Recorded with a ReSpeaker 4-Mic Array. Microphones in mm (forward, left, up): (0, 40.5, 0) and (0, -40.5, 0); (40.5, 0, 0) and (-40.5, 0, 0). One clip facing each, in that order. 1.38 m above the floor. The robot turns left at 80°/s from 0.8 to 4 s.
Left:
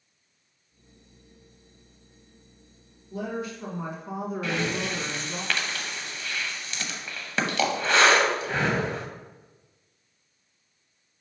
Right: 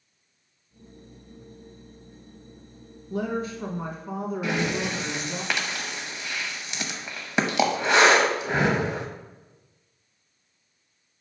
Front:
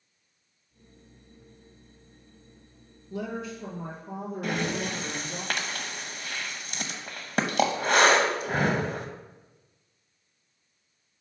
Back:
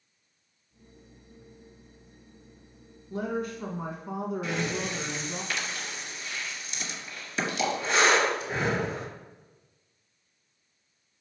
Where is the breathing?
15° right, 0.8 m.